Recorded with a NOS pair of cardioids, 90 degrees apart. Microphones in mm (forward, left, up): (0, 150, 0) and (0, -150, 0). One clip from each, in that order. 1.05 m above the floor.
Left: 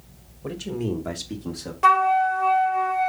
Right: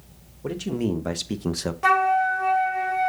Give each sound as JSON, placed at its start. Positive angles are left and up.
{"t": 0.4, "sound": "a man speaking", "azimuth_deg": -15, "distance_m": 1.3}
{"t": 1.8, "sound": "a flute", "azimuth_deg": 15, "distance_m": 0.8}